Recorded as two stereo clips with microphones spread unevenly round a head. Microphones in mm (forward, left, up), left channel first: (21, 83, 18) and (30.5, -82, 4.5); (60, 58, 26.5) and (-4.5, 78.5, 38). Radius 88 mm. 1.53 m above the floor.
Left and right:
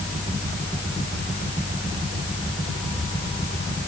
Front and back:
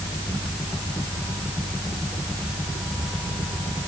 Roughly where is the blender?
No blender in this recording.